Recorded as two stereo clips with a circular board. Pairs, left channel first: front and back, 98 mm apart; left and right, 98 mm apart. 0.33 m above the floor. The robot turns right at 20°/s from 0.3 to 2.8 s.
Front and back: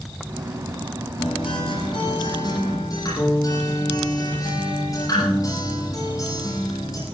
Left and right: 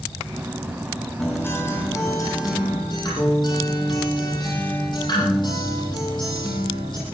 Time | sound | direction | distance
1.2 | a guitar | 15° left | 8 m